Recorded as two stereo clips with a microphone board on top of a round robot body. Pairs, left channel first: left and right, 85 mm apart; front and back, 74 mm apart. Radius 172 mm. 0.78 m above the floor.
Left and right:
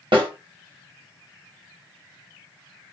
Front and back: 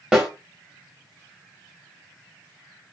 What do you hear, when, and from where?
0.1 s a snare drum: 100° right, 2.5 m